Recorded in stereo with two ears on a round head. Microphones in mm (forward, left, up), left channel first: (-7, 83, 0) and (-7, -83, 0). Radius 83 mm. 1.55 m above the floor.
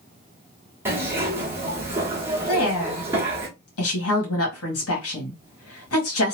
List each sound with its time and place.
0.8 s a zipper: 10° right (ahead or behind), 1.1 m
2.5 s a woman speaking: 90° left, 1.5 m